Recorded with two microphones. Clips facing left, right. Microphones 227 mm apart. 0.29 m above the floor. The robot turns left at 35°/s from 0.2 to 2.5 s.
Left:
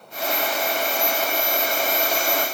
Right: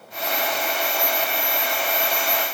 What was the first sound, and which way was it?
Only background noise.